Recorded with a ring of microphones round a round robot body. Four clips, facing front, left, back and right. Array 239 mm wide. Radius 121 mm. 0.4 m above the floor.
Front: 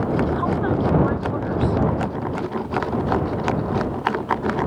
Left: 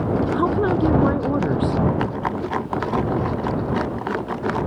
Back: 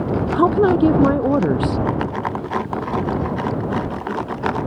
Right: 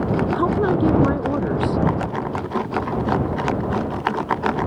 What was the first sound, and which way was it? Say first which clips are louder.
A woman speaking: right 1 dB, back 7 dB; straight behind.